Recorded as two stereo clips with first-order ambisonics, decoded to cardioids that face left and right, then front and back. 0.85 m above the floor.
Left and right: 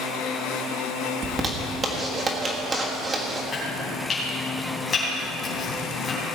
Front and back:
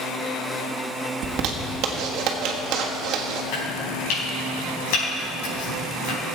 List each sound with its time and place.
1.2 s a zipper: 155° right, 1.5 m
3.5 s chopping: 20° left, 4.5 m